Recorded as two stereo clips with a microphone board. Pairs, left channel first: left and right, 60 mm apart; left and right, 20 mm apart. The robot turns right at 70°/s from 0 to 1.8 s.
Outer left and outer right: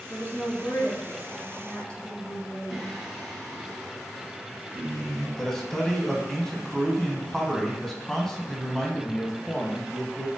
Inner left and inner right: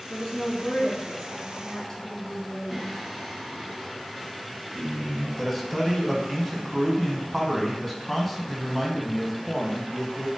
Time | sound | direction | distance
0.1 | a woman speaking | 35° left | 1.7 m
2.7 | singing | centre (ahead or behind) | 1.7 m
5.4 | a man speaking | 5° left (ahead or behind) | 1.0 m